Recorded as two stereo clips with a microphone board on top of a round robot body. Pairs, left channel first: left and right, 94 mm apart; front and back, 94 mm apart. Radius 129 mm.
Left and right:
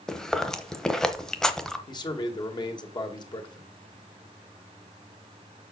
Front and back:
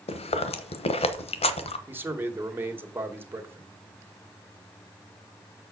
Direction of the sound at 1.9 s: 115° left.